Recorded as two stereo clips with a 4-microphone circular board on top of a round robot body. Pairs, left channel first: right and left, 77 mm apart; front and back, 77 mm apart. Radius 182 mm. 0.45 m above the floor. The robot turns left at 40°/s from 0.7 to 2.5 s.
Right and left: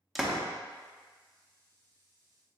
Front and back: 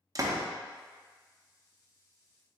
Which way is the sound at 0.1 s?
Straight behind.